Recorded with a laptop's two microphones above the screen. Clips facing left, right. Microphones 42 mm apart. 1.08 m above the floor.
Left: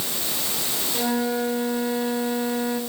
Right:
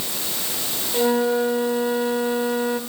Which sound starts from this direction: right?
A flute, at 0.9 s.